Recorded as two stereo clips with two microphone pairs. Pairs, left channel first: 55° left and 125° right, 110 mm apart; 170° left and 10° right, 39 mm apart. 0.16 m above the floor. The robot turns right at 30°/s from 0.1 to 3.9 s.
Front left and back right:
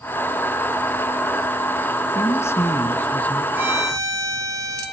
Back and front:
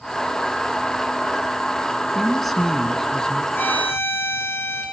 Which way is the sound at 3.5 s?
165° left.